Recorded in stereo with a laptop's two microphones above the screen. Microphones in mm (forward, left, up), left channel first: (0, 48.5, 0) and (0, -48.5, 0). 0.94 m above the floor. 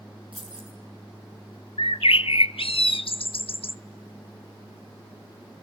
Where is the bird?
70° left (ahead or behind), 0.7 m.